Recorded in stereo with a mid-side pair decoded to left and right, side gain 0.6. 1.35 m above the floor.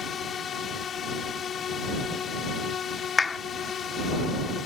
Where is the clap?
25° left.